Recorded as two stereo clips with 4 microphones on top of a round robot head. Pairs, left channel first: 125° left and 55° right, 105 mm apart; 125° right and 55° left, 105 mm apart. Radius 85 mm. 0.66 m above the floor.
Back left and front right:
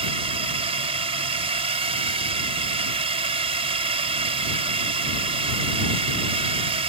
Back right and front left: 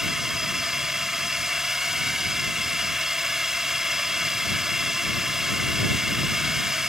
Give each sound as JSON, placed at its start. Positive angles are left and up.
{"t": 0.0, "sound": "a drone", "azimuth_deg": -30}